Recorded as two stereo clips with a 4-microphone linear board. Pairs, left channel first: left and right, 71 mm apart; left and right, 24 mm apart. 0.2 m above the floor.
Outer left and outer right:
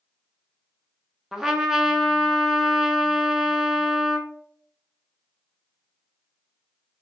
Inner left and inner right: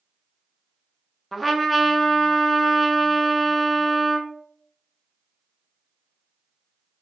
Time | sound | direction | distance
1.3 | a trumpet | 5° right (ahead or behind) | 0.6 m